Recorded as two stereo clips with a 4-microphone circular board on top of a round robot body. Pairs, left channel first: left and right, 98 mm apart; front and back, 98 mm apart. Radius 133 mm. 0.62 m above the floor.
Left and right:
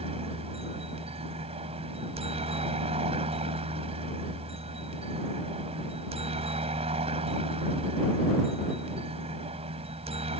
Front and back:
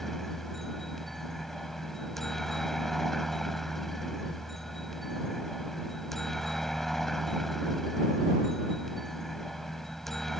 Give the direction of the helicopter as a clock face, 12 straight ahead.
3 o'clock.